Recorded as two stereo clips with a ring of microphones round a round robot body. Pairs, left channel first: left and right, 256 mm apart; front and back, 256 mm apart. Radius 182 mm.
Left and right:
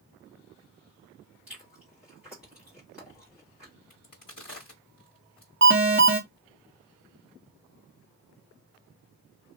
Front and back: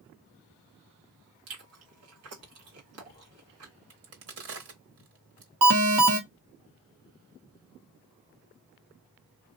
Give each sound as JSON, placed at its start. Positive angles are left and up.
{"t": 1.5, "sound": "chewing", "azimuth_deg": -175, "distance_m": 1.3}
{"t": 3.9, "sound": "a crack", "azimuth_deg": 155, "distance_m": 1.3}
{"t": 5.6, "sound": "an alarm", "azimuth_deg": -150, "distance_m": 0.8}